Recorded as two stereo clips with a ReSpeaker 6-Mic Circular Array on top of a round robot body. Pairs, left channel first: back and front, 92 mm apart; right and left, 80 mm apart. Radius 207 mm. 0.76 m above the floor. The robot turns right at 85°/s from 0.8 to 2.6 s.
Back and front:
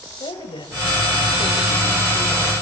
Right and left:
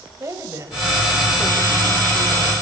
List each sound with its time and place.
0.2 s a woman speaking: 145° left, 4.5 m; by 2.5 s 70° right, 4.5 m